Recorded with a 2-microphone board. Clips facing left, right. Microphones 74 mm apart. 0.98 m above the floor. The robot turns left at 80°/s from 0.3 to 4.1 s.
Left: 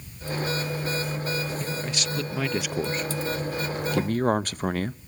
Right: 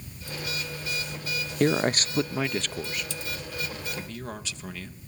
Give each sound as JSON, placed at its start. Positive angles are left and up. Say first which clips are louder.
{"t": 1.6, "sound": "a man speaking", "louder": "right 8 dB", "azimuth_deg": -105, "distance_m": 0.5}